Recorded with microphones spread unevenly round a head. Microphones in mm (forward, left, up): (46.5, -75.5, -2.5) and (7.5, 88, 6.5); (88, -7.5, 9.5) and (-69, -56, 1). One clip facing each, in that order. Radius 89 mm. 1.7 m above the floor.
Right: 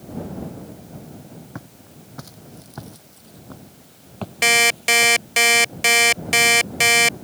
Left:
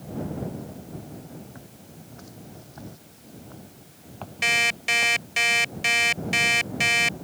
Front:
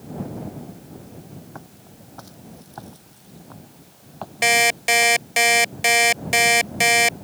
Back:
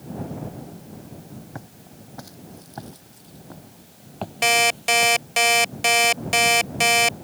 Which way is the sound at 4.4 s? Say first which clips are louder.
Right 9 dB, front 1 dB; 60° right.